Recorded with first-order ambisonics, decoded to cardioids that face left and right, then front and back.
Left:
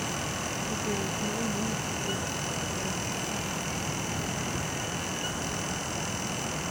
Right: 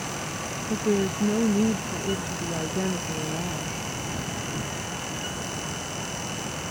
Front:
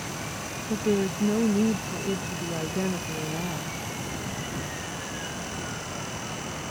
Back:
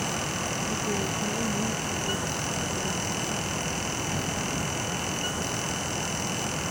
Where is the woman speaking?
50° right.